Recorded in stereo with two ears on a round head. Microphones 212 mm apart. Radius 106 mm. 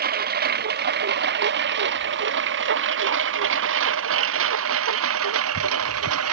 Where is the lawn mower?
40° right (ahead or behind); by 6.3 s 70° right (ahead or behind).